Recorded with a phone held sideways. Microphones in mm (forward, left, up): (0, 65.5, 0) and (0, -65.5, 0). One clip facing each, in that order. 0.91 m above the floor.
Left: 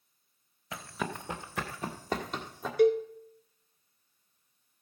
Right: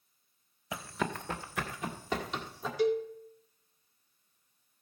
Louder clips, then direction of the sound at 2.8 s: Left 5 dB; 60° left (ahead or behind).